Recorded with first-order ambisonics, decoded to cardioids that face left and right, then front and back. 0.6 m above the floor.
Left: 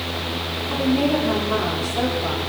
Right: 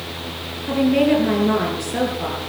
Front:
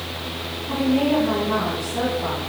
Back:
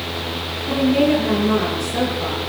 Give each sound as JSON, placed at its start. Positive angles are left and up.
{"t": 0.7, "sound": "a woman speaking", "azimuth_deg": -115, "distance_m": 10.0}